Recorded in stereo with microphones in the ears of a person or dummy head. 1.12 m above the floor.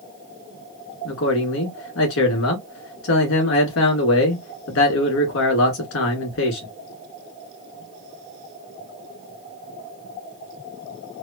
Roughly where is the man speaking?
Left.